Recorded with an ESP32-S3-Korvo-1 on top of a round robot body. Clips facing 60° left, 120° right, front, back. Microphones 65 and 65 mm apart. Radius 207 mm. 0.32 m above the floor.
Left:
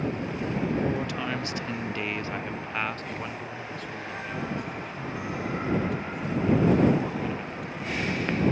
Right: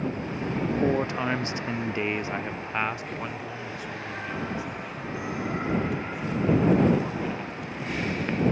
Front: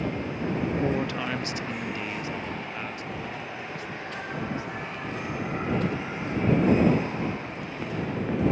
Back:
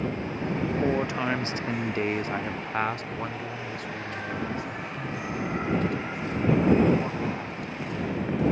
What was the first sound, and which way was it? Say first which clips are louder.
A man speaking: right 4 dB, back 1 dB; 110° right.